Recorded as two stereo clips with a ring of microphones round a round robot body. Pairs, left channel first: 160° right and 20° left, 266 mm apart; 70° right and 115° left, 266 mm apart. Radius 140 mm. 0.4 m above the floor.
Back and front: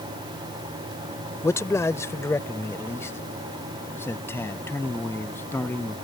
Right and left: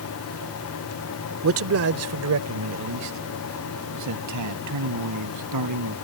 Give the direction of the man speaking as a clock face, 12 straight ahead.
8 o'clock.